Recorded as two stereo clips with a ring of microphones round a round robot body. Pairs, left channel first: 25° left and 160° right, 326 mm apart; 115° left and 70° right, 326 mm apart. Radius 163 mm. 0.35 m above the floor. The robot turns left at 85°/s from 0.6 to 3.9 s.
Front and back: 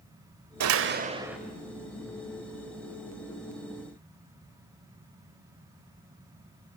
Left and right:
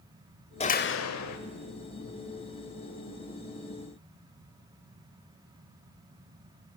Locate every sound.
0.6 s a door slam: straight behind, 1.0 m; by 1.4 s 115° left, 1.0 m